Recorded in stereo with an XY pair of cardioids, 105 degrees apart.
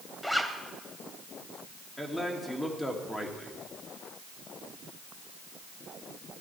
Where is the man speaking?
10° left, 2.5 m.